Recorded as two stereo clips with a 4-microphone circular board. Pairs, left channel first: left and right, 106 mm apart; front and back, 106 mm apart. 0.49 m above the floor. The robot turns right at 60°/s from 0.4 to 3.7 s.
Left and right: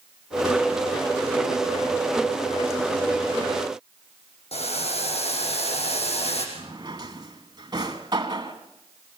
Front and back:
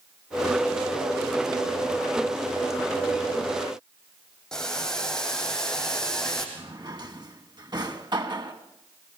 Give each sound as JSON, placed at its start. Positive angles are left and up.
{"t": 4.5, "sound": "boiling", "azimuth_deg": 85, "distance_m": 5.0}
{"t": 6.5, "sound": "a drawer", "azimuth_deg": -135, "distance_m": 2.0}